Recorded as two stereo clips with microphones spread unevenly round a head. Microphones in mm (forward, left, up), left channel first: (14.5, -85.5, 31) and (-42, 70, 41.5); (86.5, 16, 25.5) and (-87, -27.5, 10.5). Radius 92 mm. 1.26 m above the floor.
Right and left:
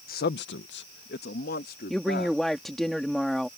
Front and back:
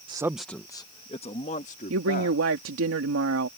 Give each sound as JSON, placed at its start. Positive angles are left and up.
{"t": 0.1, "sound": "a man speaking", "azimuth_deg": -105}
{"t": 1.9, "sound": "a woman speaking", "azimuth_deg": -160}